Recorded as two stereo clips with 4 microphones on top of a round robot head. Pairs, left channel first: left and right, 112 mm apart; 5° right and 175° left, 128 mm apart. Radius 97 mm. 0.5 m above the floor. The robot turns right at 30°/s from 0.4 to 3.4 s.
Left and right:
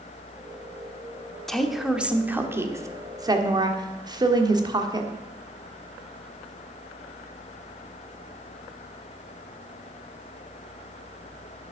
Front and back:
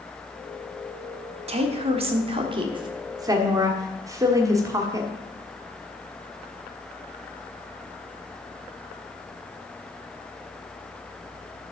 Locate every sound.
1.5 s a woman speaking: 175° left, 1.4 m; by 5.1 s 125° right, 1.4 m